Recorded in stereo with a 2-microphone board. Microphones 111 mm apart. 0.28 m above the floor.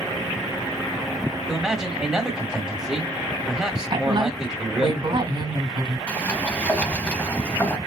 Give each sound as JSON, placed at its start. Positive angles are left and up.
{"t": 1.5, "sound": "a man speaking", "side_deg": -5, "distance_m": 1.4}
{"t": 3.9, "sound": "a woman speaking", "side_deg": -50, "distance_m": 3.0}
{"t": 6.1, "sound": "a sliding door", "side_deg": 15, "distance_m": 0.7}